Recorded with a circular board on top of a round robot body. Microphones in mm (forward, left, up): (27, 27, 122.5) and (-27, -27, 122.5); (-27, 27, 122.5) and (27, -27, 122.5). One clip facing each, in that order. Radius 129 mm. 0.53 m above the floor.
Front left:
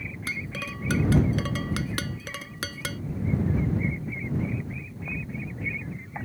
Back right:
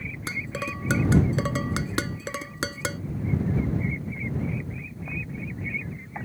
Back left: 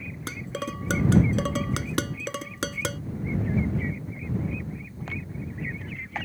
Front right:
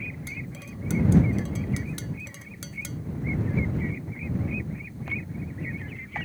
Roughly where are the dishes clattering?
Behind left.